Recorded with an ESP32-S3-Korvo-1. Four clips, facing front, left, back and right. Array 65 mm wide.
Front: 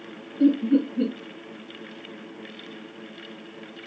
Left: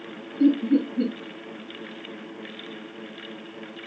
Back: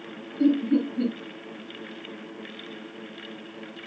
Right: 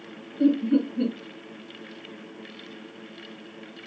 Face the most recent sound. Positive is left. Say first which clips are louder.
# left 1 dB, front 2 dB
turn(degrees=-50)